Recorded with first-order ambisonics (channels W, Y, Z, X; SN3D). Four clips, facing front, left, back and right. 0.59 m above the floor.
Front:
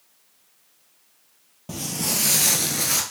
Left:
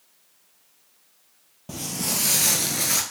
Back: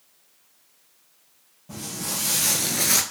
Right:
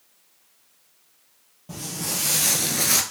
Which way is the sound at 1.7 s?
30° left.